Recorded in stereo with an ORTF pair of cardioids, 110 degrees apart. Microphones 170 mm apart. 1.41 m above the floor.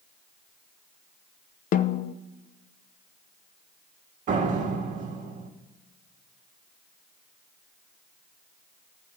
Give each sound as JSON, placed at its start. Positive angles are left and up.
{"t": 1.7, "sound": "a snare drum", "azimuth_deg": 50, "distance_m": 0.8}
{"t": 4.3, "sound": "a door slam", "azimuth_deg": -50, "distance_m": 2.0}